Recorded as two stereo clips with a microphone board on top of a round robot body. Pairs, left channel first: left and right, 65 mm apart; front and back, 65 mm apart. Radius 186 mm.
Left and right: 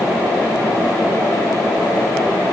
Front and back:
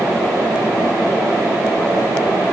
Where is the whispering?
No whispering in this recording.